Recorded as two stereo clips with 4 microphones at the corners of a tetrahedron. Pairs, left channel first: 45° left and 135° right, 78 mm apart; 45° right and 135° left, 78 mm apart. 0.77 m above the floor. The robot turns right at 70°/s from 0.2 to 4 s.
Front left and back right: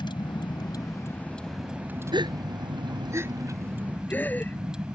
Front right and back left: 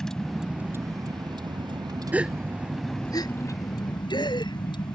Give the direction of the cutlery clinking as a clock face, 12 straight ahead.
I don't hear cutlery clinking.